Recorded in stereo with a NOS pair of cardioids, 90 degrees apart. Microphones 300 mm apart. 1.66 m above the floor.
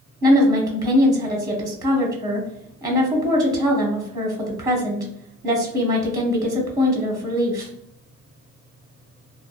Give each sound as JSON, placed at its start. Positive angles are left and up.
{"t": 0.2, "sound": "a woman speaking", "azimuth_deg": -10, "distance_m": 0.7}